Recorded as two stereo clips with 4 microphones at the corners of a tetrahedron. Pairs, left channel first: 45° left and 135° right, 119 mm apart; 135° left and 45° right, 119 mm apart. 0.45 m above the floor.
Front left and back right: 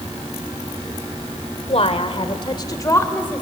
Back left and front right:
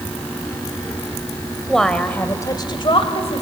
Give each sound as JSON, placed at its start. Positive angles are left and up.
{"t": 1.7, "sound": "a woman speaking", "azimuth_deg": 45, "distance_m": 1.9}